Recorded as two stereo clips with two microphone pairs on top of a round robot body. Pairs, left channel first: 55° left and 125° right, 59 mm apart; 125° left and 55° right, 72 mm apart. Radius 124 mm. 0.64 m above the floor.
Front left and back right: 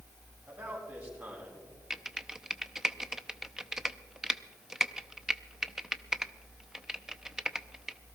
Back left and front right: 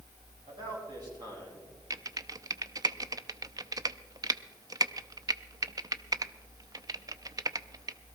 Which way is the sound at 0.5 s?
70° right.